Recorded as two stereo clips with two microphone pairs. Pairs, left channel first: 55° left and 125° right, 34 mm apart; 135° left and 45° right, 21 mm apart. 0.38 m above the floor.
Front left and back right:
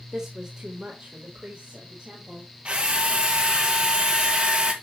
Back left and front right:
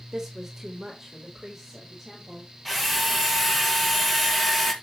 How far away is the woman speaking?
About 1.1 m.